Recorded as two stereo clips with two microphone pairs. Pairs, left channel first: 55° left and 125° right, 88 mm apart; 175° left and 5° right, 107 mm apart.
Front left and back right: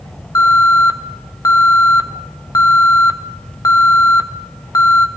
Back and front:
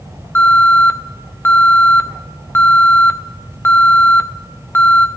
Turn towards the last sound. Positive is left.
turn(degrees=105)